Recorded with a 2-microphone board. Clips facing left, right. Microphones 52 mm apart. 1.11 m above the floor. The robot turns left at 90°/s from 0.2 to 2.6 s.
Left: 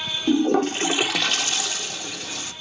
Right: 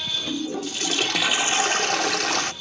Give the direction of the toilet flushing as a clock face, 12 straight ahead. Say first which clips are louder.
Left 12 dB; 9 o'clock.